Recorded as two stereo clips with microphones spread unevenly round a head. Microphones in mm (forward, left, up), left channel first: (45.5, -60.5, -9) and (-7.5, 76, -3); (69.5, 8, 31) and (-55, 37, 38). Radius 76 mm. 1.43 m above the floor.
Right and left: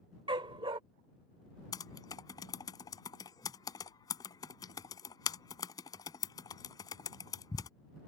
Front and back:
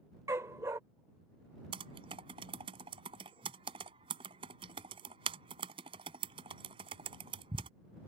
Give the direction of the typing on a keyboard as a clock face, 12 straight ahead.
5 o'clock.